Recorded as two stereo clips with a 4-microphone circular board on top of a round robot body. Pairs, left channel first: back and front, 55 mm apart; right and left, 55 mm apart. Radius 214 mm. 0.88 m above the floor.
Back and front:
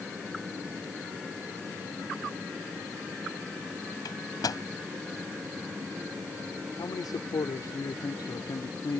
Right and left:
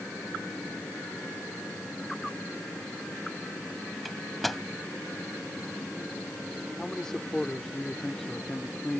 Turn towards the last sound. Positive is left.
turn(degrees=-170)